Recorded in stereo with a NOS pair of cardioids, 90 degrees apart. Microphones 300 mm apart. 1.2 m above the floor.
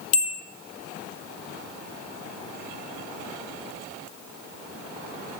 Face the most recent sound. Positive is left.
turn(degrees=50)